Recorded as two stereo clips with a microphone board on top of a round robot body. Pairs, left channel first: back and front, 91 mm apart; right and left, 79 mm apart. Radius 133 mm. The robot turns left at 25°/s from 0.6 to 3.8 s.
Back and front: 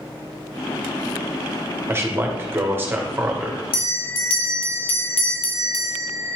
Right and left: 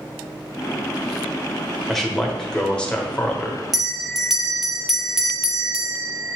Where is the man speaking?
10° right, 1.0 m; by 3.6 s 50° right, 1.0 m.